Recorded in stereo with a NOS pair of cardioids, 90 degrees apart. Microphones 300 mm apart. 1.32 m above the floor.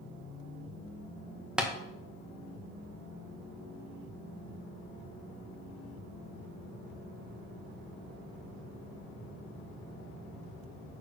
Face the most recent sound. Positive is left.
turn(degrees=-5)